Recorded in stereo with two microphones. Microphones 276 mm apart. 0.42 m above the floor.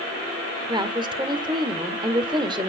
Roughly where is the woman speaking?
Centre.